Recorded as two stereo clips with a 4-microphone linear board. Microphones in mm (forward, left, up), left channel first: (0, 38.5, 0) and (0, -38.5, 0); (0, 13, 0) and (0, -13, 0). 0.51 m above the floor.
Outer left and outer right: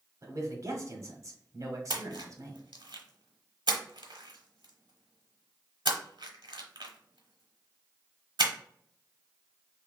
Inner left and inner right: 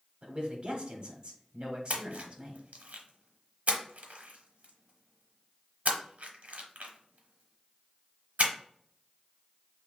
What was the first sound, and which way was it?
A man speaking, 45° right (ahead or behind).